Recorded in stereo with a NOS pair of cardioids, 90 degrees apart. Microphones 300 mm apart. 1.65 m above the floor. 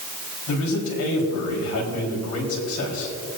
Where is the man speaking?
65° left, 4 m.